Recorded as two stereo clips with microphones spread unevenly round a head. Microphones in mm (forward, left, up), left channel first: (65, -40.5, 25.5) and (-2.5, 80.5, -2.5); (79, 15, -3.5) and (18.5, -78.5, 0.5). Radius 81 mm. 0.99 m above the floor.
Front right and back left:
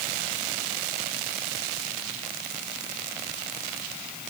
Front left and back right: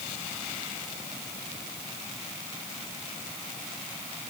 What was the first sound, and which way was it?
Only background noise.